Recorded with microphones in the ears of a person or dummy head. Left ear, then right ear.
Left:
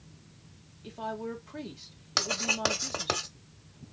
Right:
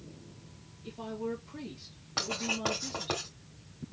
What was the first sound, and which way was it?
A woman speaking, 55° left (ahead or behind).